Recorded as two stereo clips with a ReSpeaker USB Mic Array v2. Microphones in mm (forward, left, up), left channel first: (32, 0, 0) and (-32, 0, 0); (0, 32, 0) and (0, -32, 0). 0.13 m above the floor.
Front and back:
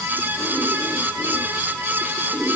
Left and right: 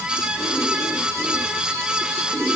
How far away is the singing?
I don't hear singing.